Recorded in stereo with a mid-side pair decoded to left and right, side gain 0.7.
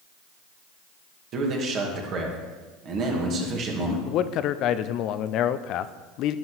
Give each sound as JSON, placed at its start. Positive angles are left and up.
{"t": 1.3, "sound": "a man speaking", "azimuth_deg": -50, "distance_m": 2.5}
{"t": 4.1, "sound": "a man speaking", "azimuth_deg": 55, "distance_m": 0.5}